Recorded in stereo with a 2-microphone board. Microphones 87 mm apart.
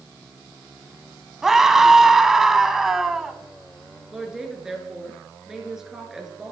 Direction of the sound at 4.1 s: 5° right (ahead or behind).